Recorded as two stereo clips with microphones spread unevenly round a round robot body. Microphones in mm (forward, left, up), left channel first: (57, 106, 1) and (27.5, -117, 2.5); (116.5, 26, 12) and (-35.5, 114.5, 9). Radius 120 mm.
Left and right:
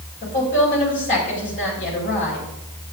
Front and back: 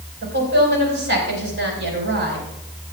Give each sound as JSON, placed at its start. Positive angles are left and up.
{"t": 0.2, "sound": "a woman speaking", "azimuth_deg": 145, "distance_m": 5.0}